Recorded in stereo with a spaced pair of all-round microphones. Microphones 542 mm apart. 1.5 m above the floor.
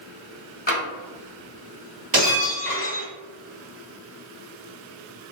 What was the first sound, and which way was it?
Tapping, 15° left (ahead or behind).